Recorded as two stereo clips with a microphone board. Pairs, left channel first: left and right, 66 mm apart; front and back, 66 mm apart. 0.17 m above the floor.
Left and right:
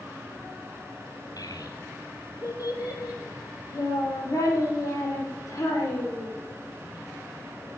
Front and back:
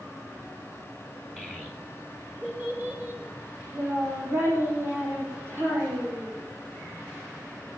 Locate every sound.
1.4 s a child speaking: 95° left, 2 m; by 6.3 s 130° left, 5 m